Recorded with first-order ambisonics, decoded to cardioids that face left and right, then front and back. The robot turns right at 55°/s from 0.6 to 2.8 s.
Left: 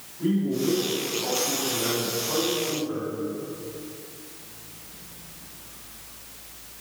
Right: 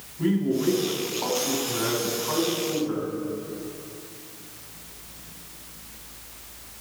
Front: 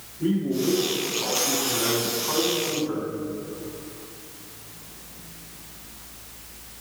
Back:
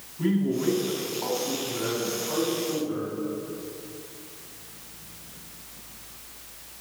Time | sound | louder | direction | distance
0.2 | a man speaking | right 1 dB, front 1 dB | 150° right | 2 m